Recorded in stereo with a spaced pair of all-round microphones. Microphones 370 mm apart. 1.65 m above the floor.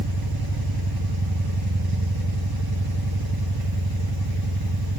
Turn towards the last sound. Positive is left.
turn(degrees=-70)  # may be behind; listen again after turning